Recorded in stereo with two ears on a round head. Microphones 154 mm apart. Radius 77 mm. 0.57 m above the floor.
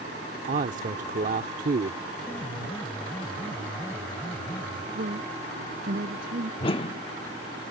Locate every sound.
0.5 s a man speaking: 45° right (ahead or behind)
2.2 s a piano: 10° left (ahead or behind)
5.0 s a woman speaking: 55° right (ahead or behind)
6.6 s a whoosh: 30° left (ahead or behind)